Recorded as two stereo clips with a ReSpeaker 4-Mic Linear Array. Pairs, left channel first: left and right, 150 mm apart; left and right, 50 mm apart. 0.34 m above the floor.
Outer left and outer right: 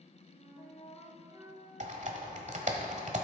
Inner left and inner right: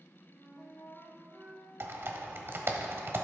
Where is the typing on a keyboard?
55° right (ahead or behind), 1.1 m.